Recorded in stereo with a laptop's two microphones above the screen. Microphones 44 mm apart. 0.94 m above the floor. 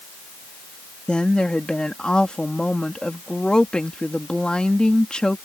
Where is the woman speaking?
20° left (ahead or behind).